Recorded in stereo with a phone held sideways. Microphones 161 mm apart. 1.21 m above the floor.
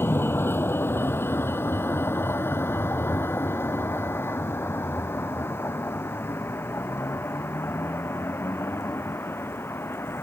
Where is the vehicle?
15° left (ahead or behind).